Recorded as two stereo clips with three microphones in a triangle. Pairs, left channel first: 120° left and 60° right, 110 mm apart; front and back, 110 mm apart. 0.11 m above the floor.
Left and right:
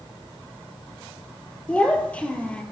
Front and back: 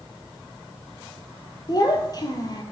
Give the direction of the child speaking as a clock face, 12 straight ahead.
11 o'clock.